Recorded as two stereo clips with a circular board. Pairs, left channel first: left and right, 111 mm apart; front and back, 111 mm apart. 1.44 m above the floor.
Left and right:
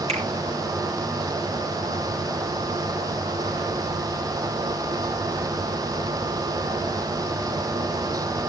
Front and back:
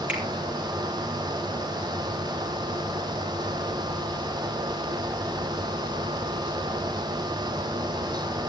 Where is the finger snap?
105° right, 4 m.